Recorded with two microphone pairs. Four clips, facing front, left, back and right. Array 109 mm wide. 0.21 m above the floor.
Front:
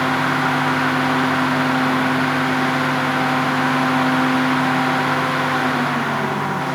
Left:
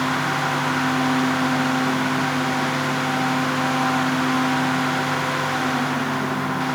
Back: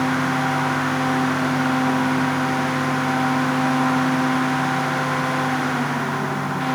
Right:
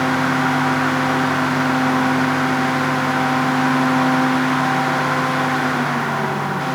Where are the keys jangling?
I don't hear keys jangling.